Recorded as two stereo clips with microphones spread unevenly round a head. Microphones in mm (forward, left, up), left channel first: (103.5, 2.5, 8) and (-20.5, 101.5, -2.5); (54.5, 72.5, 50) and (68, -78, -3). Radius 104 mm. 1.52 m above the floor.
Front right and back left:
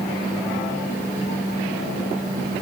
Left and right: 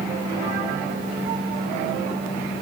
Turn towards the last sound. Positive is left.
No sound to turn to.